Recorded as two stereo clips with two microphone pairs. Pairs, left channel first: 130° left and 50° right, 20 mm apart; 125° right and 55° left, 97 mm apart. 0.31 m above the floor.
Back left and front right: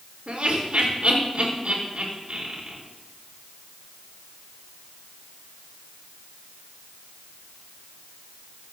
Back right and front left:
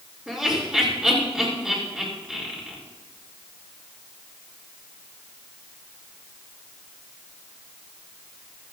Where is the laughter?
30° right, 5 m.